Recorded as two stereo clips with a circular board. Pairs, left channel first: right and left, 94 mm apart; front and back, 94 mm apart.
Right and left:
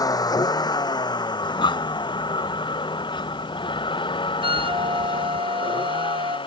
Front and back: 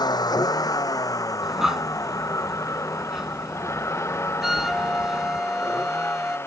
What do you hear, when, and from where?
0.0 s a vehicle: 40° right; by 6.5 s 65° right
1.4 s breathing: 95° right
4.4 s a flute: 95° left